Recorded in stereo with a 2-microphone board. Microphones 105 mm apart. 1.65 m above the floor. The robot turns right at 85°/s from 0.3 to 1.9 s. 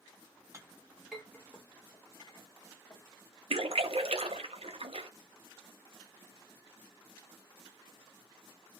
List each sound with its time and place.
0.5 s a clink: 30° right (ahead or behind), 0.7 m; by 3.0 s 35° left (ahead or behind), 0.7 m
3.5 s a splash: 70° right (ahead or behind), 0.6 m